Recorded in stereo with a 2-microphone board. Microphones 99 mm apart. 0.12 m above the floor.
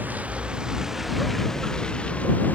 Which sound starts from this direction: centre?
A vehicle, at 0.0 s.